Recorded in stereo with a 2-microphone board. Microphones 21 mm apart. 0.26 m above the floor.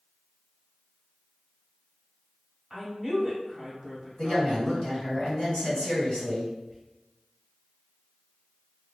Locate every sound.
2.7 s a woman speaking: 5° right (ahead or behind), 1.5 m
4.2 s a woman speaking: 45° left (ahead or behind), 1.9 m
6.7 s whispering: 20° left (ahead or behind), 1.2 m